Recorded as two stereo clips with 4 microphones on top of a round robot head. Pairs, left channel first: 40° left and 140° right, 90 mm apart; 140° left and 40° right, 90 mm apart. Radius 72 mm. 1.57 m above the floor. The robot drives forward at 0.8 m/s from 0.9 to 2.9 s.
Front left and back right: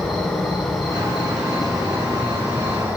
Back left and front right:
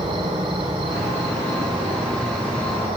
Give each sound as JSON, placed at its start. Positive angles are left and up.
{"t": 0.0, "sound": "an insect", "azimuth_deg": -50, "distance_m": 6.5}